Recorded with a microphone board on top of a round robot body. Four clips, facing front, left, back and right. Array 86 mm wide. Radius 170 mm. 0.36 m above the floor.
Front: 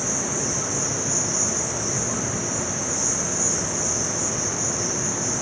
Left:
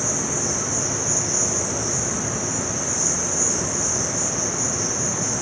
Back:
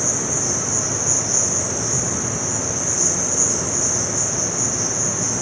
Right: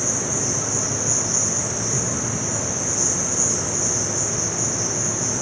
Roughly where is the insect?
Right.